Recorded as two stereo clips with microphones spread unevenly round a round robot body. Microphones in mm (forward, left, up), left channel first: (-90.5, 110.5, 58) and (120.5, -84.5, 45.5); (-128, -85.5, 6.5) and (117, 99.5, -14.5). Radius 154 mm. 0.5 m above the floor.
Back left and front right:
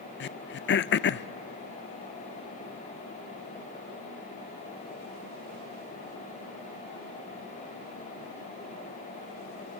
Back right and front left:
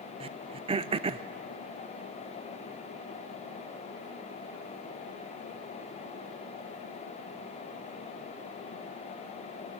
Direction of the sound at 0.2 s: 100° left.